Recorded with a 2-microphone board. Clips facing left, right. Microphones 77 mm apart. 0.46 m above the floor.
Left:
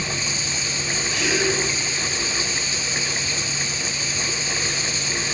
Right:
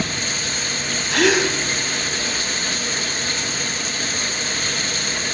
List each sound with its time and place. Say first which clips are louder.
0.0 s running water: right 3 dB; 55° right (ahead or behind), 2 m
1.1 s a gasp: right 6 dB; 65° right (ahead or behind), 3 m